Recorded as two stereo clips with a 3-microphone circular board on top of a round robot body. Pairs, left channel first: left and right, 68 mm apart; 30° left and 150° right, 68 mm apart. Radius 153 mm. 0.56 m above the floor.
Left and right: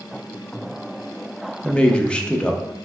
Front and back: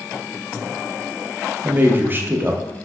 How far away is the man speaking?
About 0.8 m.